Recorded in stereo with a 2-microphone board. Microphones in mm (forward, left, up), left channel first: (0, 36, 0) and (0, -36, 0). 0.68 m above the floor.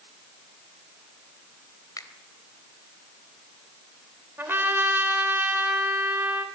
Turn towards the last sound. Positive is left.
turn(degrees=-30)  # may be behind; listen again after turning